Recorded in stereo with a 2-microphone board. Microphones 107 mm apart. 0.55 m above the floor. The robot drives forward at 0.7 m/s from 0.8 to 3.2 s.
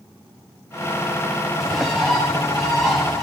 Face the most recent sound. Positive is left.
turn(degrees=0)  # may be behind; listen again after turning